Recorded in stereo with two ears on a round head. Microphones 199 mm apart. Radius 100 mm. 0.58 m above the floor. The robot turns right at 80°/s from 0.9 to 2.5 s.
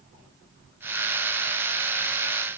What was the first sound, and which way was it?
Only background noise.